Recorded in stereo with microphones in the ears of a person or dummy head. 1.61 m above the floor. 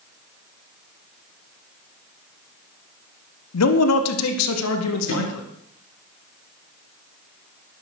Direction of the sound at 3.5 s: 85° left.